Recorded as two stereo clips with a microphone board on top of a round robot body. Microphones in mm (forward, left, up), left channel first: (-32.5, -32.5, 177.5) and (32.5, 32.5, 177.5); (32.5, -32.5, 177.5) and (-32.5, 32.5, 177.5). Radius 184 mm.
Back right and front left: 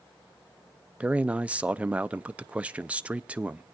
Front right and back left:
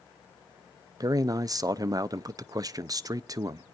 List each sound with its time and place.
1.0 s a man speaking: 115° left, 0.6 m